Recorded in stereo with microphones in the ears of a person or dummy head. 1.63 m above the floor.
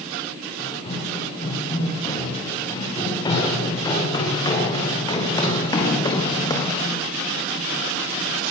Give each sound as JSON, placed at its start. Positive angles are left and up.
{"t": 0.6, "sound": "running footsteps", "side_deg": 30, "distance_m": 7.0}